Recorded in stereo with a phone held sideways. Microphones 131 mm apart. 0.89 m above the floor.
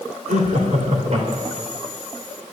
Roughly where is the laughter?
Right.